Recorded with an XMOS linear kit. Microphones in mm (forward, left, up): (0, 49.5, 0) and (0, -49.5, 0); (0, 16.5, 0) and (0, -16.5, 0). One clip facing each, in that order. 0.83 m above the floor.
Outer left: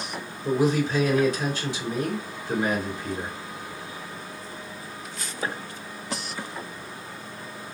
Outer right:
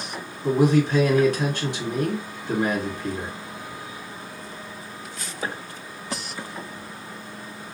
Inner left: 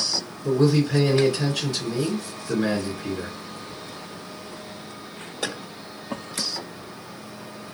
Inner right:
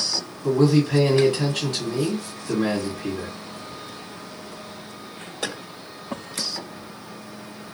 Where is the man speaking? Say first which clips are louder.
Outer right 4 dB, inner right 2 dB; 55° right (ahead or behind), 1.8 m.